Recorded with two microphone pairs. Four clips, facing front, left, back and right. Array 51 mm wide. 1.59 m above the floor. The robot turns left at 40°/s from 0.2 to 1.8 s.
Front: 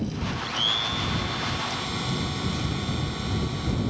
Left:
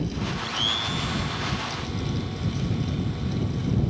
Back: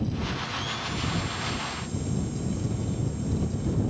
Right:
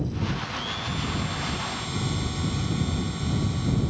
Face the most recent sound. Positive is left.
turn(degrees=-20)